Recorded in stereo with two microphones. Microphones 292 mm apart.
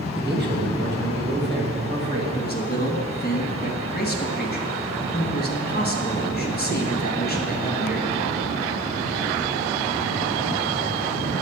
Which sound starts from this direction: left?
A man speaking, at 2.4 s.